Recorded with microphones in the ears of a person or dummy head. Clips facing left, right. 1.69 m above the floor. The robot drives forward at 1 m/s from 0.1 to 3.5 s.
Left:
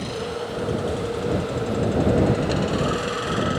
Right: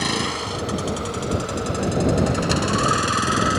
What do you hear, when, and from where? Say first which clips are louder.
0.0 s a vehicle: right 2 dB; 75° right (ahead or behind); by 3.6 s 60° right (ahead or behind)